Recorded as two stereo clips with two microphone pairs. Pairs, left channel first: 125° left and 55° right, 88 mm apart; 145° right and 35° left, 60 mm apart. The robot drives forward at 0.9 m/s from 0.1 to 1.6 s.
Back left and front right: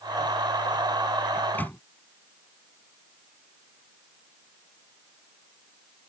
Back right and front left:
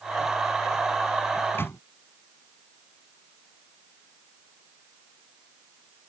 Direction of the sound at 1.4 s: 170° right.